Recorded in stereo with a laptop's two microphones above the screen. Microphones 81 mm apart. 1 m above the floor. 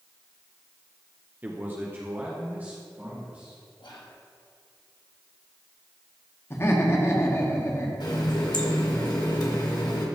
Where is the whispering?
80° left, 1.3 m.